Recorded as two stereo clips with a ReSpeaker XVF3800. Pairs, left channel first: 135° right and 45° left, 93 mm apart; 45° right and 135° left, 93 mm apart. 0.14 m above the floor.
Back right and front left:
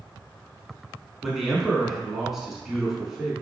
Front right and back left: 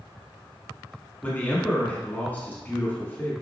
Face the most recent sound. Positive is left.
turn(degrees=-30)